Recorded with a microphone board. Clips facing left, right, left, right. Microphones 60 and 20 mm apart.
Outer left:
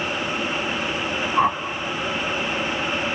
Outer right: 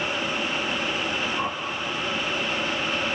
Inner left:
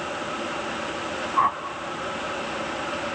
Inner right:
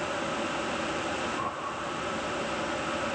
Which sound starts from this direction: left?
A whoosh, at 1.4 s.